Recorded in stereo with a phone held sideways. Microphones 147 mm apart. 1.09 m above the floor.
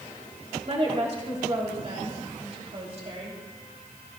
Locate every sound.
0.7 s a woman speaking: 45° right (ahead or behind), 3 m